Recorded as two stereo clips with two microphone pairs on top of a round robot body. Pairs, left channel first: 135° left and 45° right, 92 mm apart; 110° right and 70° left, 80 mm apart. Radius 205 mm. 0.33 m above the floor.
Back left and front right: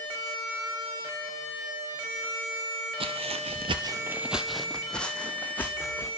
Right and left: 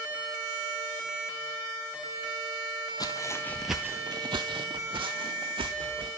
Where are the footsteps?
70° right, 1.0 m; by 6.1 s 65° left, 3 m.